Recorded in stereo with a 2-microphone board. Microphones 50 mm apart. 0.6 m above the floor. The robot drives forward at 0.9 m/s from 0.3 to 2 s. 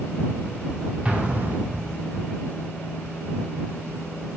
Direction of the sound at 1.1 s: 25° right (ahead or behind).